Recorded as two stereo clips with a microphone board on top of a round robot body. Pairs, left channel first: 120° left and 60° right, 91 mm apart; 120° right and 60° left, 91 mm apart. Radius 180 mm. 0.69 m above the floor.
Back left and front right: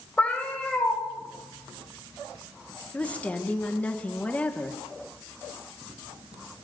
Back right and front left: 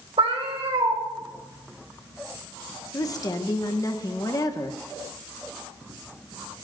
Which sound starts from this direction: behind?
A woman speaking, at 2.9 s.